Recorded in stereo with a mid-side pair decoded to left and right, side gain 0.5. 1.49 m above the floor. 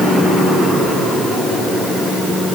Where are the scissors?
I don't hear scissors.